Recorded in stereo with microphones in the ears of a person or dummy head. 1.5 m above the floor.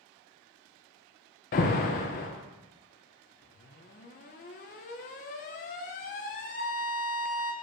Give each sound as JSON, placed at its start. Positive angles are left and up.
{"t": 1.5, "sound": "an alarm", "side_deg": 40, "distance_m": 0.6}